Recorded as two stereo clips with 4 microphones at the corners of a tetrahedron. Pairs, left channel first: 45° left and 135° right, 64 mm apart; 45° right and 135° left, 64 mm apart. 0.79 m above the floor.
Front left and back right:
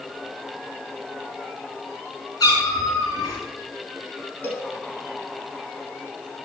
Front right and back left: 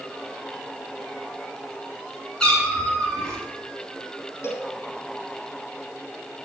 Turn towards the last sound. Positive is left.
turn(degrees=-10)